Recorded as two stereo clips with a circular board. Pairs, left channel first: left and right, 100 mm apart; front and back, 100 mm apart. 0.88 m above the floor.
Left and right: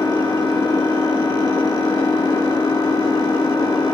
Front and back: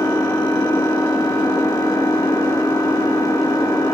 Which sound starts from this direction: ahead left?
An engine running, at 0.0 s.